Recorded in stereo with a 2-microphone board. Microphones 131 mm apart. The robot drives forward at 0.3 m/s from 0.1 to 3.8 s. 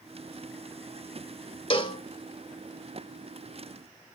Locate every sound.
1.7 s a cowbell: 40° left (ahead or behind), 0.8 m